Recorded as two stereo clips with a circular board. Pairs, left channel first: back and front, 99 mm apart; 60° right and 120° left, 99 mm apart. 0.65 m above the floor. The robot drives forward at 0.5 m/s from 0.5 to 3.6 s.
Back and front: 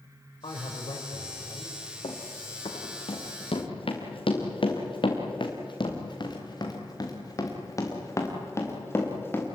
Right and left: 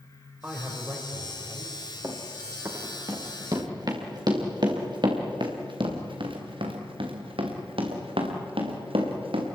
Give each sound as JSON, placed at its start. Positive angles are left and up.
{"t": 0.4, "sound": "a man speaking", "azimuth_deg": -170, "distance_m": 3.0}
{"t": 2.0, "sound": "running footsteps", "azimuth_deg": 180, "distance_m": 4.0}